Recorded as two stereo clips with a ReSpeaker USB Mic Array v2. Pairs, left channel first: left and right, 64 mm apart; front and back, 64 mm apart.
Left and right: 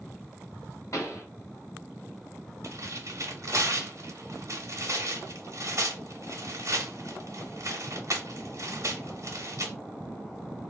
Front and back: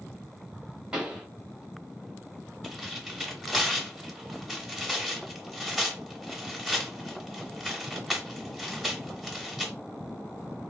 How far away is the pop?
About 1.2 m.